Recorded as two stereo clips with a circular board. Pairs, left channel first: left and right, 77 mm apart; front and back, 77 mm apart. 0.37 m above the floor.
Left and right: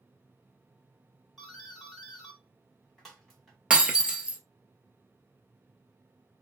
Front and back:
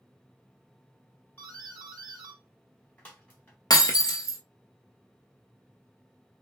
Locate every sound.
1.4 s a doorbell: 5° left, 1.3 m
3.7 s breaking glass: 15° right, 0.6 m